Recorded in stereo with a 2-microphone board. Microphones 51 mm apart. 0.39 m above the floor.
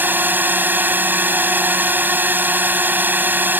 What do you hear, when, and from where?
0.0 s a drone: 35° right (ahead or behind)